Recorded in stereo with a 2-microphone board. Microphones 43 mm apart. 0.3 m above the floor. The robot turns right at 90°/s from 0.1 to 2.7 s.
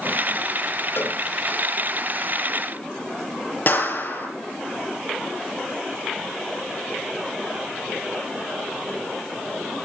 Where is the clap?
45° left (ahead or behind), 5 m.